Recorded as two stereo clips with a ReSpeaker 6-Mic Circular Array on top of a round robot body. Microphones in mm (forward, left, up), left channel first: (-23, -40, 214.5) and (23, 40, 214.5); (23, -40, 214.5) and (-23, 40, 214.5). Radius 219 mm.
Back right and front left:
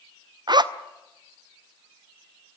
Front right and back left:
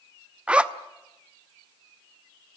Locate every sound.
0.5 s a zipper: 45° left, 1.2 m